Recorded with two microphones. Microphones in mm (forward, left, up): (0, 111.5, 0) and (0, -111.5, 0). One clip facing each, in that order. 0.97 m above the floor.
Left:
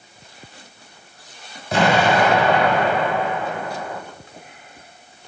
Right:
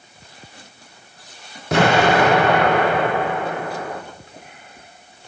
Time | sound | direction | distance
1.7 | an explosion | 75° right (ahead or behind) | 2.5 m